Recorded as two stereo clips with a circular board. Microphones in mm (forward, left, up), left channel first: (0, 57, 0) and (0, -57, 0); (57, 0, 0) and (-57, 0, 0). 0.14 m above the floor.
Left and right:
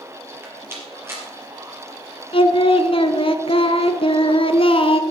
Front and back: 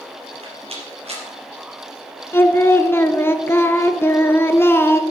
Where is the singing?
65° left, 0.7 m.